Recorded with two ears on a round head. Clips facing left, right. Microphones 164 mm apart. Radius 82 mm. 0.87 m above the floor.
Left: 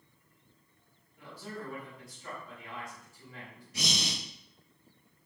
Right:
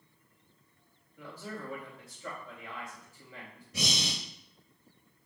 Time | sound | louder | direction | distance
1.2 | a man speaking | right 1 dB | 80° right | 4 m
3.7 | breathing | right 1 dB | 75° right (ahead or behind) | 1.4 m